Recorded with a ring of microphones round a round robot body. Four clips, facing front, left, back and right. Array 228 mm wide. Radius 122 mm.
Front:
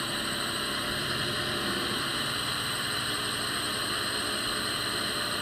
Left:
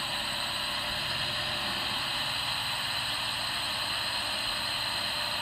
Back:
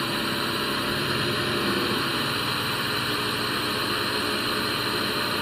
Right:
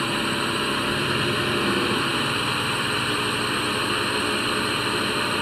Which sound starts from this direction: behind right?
A drone, at 0.0 s.